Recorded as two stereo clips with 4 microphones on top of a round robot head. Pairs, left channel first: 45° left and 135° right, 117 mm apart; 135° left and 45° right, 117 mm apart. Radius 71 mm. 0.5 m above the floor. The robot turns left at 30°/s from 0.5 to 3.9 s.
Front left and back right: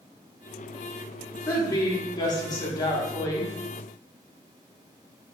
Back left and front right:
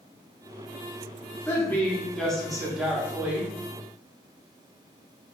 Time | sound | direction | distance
1.5 | a woman speaking | 80° left | 1.0 m